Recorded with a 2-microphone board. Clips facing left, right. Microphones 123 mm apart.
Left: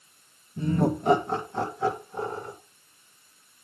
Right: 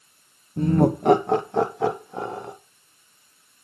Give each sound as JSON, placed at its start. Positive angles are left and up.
{"t": 0.6, "sound": "laughter", "side_deg": -55, "distance_m": 1.2}